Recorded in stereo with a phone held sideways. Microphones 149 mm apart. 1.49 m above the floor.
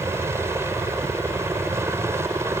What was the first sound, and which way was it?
A helicopter, 15° right (ahead or behind).